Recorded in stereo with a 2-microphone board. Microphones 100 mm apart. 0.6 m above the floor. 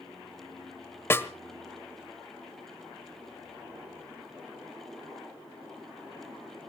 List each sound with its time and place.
1.1 s a snare drum: 25° left (ahead or behind), 1.3 m